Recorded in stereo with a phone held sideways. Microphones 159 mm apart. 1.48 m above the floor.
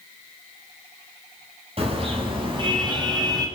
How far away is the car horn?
About 7 m.